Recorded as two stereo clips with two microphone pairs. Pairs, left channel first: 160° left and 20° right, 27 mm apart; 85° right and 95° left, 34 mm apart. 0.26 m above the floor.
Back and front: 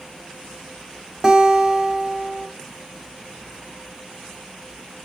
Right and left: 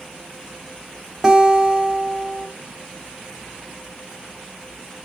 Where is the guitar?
40° left, 1.2 m.